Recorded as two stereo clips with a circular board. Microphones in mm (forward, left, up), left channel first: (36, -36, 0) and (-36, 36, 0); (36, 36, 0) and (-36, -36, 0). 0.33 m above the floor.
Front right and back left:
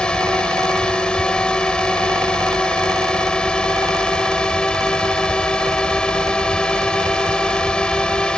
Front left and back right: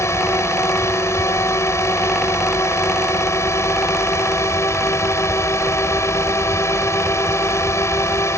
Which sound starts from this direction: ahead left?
A drone, at 0.0 s.